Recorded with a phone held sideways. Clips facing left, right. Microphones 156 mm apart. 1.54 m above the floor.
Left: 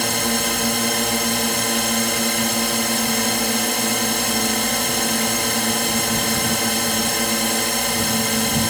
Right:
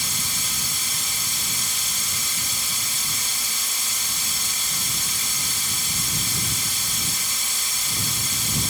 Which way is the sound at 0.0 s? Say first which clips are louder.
Left 15 dB; 70° left (ahead or behind).